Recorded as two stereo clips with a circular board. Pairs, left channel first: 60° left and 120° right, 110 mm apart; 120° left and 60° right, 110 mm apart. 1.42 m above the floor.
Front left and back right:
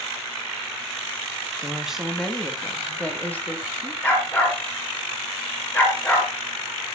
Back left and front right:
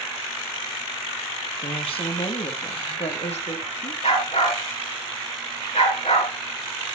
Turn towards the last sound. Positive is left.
turn(degrees=130)